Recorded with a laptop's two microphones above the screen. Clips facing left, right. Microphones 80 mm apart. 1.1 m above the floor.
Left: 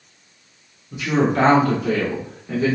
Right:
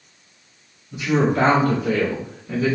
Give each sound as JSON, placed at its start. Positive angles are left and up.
{"t": 0.9, "sound": "a woman speaking", "side_deg": 75, "distance_m": 1.3}